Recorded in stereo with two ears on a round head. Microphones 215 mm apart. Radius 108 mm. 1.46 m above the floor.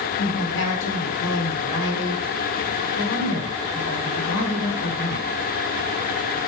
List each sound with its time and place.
0.2 s a woman speaking: 55° left (ahead or behind), 3 m